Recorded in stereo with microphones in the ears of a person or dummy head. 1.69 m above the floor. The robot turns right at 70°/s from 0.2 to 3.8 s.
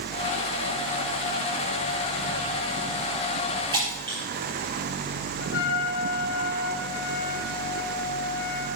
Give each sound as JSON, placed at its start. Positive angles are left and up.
{"t": 3.7, "sound": "breaking glass", "side_deg": -30, "distance_m": 5.5}
{"t": 5.4, "sound": "a trumpet", "side_deg": 65, "distance_m": 2.0}